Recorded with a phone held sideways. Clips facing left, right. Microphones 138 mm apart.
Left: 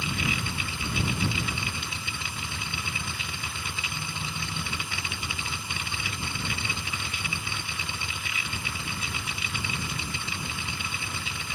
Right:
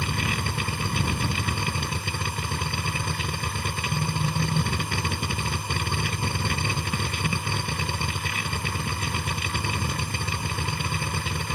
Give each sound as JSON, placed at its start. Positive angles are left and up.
{"t": 0.0, "sound": "a machine running", "side_deg": -55}